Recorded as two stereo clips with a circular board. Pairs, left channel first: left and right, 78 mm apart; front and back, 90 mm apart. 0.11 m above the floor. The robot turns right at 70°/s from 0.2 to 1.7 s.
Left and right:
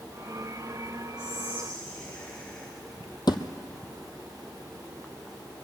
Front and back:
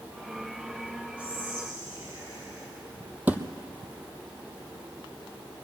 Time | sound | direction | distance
1.2 | whispering | 115° left | 2.0 m
3.3 | a thud | 110° left | 0.8 m